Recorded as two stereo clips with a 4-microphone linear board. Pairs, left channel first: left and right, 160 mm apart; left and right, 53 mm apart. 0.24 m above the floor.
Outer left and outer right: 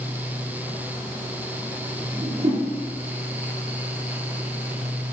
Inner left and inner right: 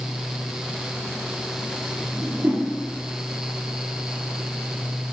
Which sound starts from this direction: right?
A whoosh, at 2.1 s.